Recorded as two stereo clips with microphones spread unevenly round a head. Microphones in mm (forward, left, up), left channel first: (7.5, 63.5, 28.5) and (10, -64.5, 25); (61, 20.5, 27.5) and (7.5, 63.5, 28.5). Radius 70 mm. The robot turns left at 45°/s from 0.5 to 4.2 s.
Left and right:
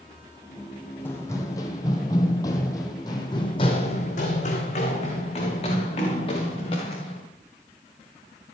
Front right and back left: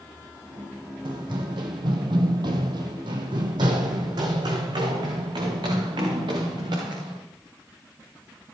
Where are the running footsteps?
165° left, 2.5 m; by 7.2 s 145° left, 7 m.